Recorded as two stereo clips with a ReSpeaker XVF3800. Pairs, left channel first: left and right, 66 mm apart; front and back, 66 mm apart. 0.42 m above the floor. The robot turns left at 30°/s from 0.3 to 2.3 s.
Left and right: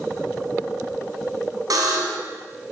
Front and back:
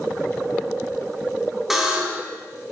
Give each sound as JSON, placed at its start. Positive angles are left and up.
{"t": 1.7, "sound": "a buzzer", "azimuth_deg": -95, "distance_m": 2.5}